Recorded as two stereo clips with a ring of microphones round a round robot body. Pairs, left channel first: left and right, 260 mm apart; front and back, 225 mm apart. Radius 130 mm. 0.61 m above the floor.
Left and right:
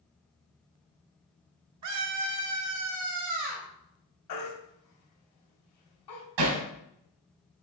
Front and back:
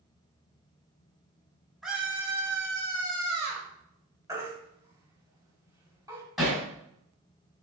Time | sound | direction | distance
1.8 | a scream | 90° right | 1.3 m
4.3 | a baby crying | 105° left | 3 m
6.4 | hammering | 90° right | 2.5 m